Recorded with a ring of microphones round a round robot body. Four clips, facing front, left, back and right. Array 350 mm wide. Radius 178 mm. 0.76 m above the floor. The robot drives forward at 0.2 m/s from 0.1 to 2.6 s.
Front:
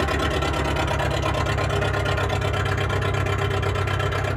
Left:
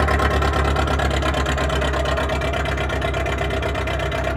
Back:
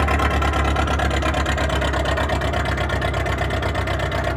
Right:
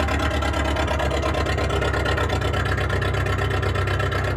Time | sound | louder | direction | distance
0.0 | an engine running | left 4 dB, back 3 dB | 120° left | 1.0 m